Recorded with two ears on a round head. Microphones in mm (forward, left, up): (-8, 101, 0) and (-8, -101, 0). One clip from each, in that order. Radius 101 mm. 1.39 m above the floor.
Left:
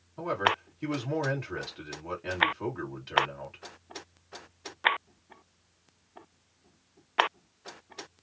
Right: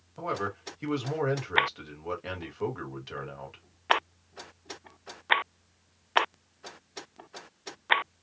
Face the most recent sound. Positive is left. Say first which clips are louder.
# left 5 dB
turn(degrees=-10)  # may be behind; listen again after turning